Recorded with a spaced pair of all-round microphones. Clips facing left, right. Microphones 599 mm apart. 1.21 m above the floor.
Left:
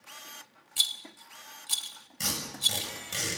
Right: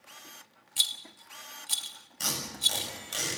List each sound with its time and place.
0.8 s a rattle: 5° right (ahead or behind), 1.0 m
2.2 s tape being pulled: 50° left (ahead or behind), 7.5 m